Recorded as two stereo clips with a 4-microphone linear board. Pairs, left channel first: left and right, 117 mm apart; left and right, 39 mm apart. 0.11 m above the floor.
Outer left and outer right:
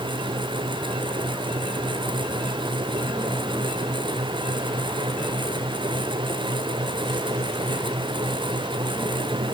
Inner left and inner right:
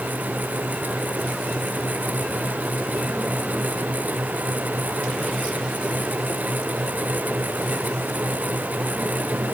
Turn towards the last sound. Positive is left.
No sound to turn to.